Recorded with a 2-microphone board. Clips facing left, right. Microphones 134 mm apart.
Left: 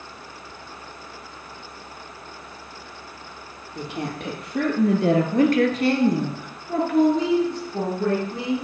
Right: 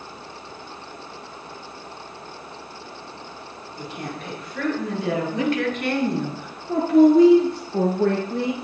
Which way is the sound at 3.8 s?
70° left (ahead or behind).